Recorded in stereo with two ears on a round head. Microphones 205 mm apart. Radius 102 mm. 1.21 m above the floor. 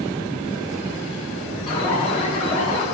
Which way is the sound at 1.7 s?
25° left (ahead or behind).